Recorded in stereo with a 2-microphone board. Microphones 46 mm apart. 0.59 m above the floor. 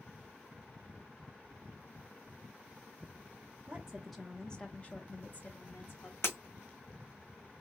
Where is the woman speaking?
20° right (ahead or behind), 0.9 m; by 6.1 s 55° left (ahead or behind), 1.5 m.